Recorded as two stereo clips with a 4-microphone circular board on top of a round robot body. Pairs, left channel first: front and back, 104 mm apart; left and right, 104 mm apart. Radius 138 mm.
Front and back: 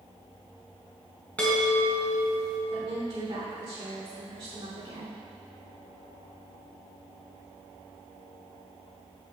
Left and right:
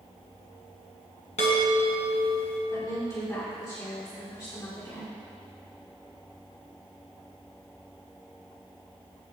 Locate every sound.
1.4 s a chime: 75° left, 1.5 m
2.7 s a woman speaking: 145° left, 2.5 m